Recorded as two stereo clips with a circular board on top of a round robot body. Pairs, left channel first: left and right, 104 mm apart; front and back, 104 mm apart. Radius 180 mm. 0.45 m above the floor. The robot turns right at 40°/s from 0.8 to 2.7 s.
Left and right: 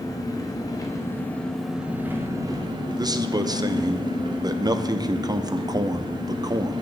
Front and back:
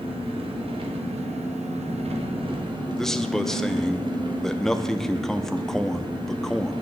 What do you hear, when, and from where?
0.0 s an engine running: 145° left, 1.2 m; by 6.8 s 140° right, 1.2 m
3.0 s a man speaking: 85° right, 0.8 m